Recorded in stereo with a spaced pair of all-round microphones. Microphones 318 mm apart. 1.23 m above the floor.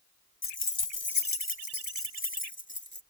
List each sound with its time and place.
0.4 s keys jangling: 40° left (ahead or behind); by 3.0 s 35° left (ahead or behind)